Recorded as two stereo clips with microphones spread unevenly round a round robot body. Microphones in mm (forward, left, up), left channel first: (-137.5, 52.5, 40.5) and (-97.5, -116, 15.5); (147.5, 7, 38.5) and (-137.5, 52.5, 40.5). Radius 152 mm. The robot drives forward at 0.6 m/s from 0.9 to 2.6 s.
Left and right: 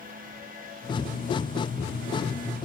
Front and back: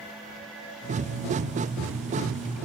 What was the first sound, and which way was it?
Only background noise.